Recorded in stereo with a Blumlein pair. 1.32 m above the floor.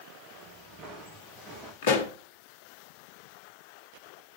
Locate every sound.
0.3 s footsteps: 45° right, 7.5 m
1.8 s a pop: 50° left, 1.1 m